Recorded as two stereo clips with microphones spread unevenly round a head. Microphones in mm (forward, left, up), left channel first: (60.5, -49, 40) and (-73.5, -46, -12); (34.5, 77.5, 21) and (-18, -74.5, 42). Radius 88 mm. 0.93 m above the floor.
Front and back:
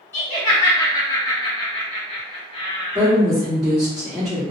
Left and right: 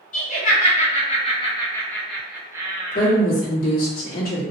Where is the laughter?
85° left, 1.2 m; by 3.1 s 65° right, 0.8 m.